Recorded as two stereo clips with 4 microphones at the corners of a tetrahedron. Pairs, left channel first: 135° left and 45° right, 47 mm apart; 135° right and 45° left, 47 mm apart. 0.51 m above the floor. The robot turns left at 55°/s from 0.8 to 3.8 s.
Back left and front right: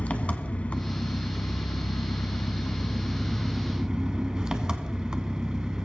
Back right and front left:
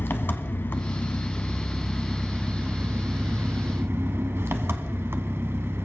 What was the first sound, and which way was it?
An engine running, 165° right.